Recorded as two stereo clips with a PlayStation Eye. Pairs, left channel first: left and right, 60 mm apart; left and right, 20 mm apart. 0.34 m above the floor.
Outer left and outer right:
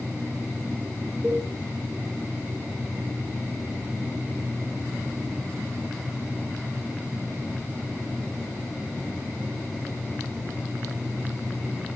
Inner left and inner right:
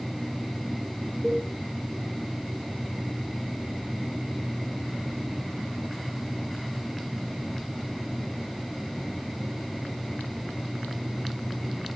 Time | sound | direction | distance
1.2 | a cowbell | 20° right (ahead or behind) | 6.5 m